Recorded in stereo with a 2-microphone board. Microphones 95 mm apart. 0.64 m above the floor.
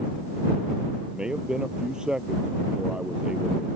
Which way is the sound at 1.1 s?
10° right (ahead or behind).